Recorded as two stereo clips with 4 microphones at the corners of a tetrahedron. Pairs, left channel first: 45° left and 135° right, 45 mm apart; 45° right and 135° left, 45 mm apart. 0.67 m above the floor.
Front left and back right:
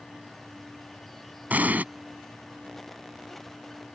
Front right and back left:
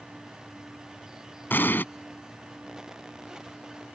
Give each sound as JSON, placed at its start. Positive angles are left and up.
{"t": 1.5, "sound": "an explosion", "azimuth_deg": -85}